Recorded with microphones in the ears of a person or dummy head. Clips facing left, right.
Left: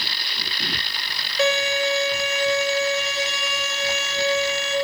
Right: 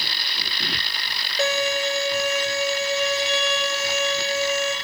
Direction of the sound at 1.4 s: 25° right (ahead or behind).